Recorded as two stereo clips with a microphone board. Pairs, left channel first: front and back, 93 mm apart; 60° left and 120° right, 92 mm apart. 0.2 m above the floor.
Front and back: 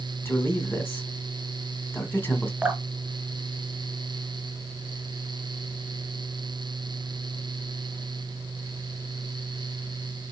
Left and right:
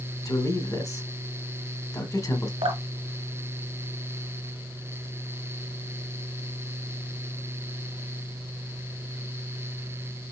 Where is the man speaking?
55° left, 1.3 m.